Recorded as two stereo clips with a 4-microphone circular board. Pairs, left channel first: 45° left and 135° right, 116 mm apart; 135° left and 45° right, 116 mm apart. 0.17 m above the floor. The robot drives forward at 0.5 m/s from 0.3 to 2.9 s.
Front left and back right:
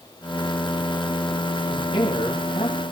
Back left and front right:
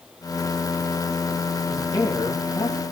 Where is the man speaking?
80° left, 5 m; by 2.9 s 85° left, 5 m.